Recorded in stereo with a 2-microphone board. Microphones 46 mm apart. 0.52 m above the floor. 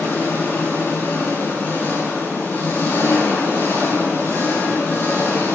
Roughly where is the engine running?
Left.